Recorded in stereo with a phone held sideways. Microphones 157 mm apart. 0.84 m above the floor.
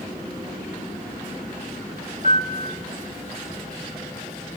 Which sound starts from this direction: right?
A piano, at 2.2 s.